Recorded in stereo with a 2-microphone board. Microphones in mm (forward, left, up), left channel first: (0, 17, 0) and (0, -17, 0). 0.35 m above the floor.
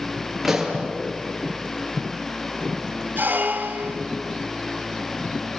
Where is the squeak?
75° right (ahead or behind), 1.7 m.